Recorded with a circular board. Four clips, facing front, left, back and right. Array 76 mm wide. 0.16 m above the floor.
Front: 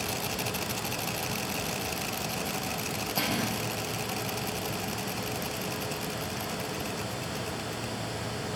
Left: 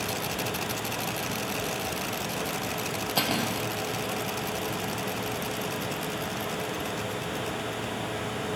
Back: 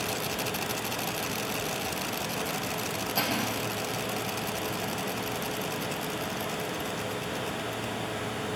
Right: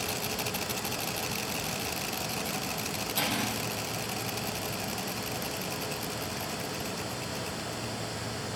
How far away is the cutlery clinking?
About 2.5 m.